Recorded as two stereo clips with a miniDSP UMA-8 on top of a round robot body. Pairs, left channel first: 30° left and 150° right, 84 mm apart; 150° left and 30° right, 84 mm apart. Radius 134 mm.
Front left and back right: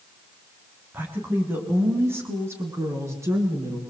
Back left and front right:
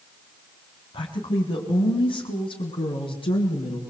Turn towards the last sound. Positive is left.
turn(degrees=160)